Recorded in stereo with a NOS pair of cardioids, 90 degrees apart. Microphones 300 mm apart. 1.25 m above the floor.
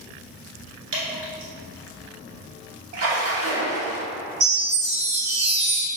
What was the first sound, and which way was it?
Dripping, 60° right.